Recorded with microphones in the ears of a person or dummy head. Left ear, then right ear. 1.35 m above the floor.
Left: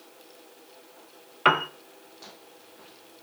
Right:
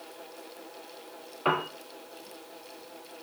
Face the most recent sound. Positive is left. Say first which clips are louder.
# left 6 dB
turn(degrees=60)  # may be behind; listen again after turning